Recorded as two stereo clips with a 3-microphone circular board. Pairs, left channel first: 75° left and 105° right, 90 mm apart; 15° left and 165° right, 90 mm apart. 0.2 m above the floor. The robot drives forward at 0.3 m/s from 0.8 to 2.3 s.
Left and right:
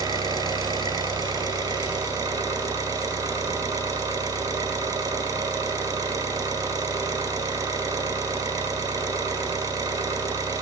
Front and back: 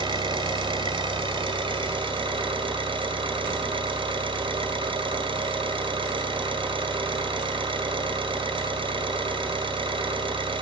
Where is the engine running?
140° right, 1.6 m; by 10.6 s 150° right, 2.0 m.